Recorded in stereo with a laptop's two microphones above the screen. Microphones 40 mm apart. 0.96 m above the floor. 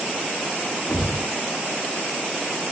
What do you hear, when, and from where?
0.9 s a thud: 70° left (ahead or behind), 3.5 m